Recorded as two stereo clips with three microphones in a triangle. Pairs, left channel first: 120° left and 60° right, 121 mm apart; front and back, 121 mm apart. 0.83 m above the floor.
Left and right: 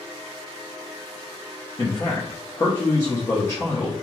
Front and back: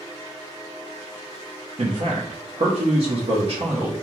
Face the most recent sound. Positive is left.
turn(degrees=-175)